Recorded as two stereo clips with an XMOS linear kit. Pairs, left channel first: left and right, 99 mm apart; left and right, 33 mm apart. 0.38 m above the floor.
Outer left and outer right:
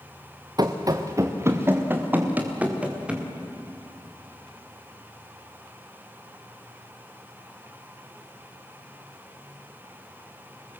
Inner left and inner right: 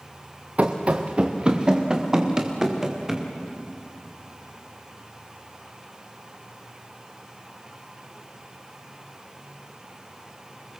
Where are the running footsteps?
40° right (ahead or behind), 2 m; by 3.3 s 10° right (ahead or behind), 4.5 m.